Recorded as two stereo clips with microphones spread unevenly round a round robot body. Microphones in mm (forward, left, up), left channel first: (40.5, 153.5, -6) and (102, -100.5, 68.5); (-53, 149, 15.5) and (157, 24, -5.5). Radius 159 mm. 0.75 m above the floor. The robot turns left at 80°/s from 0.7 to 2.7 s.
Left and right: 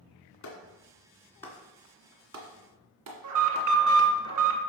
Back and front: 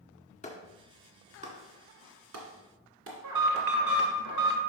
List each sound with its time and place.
0.4 s a clap: 85° left, 1.9 m; by 4.1 s 75° right, 1.9 m
3.2 s an alarm: 65° right, 1.5 m